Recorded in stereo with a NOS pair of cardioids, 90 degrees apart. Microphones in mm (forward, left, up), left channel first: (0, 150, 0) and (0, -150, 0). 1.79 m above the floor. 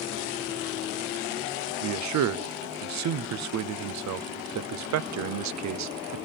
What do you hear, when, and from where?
1.8 s a man speaking: 60° right, 0.8 m